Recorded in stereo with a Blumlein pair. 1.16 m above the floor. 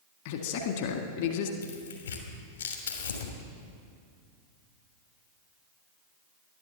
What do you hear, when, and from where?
0.2 s a man speaking: 50° left, 1.7 m
1.6 s tearing paper: 70° left, 2.5 m